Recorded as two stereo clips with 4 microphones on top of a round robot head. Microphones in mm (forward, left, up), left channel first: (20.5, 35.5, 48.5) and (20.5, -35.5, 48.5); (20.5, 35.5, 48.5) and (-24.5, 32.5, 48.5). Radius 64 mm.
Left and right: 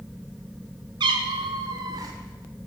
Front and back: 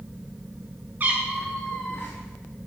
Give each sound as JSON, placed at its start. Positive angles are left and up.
{"t": 1.0, "sound": "a cat meowing", "azimuth_deg": -115, "distance_m": 0.8}